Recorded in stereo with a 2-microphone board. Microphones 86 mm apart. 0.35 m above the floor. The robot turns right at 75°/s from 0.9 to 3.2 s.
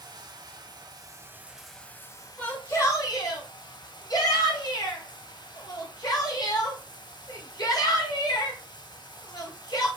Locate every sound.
0.0 s running water: 55° right, 0.8 m; by 10.0 s 115° left, 0.8 m
2.4 s a shout: 20° left (ahead or behind), 1.9 m; by 9.9 s 50° left (ahead or behind), 1.9 m